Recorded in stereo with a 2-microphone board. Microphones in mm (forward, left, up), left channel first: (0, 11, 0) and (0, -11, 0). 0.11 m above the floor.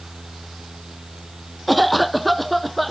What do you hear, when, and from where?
1.7 s a cough: 5° left (ahead or behind)